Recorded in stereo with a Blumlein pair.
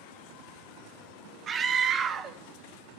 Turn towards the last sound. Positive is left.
turn(degrees=-25)